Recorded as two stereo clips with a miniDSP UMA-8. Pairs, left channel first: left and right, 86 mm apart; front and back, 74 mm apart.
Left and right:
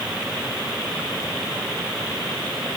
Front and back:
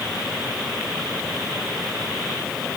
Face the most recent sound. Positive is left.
No sound to turn to.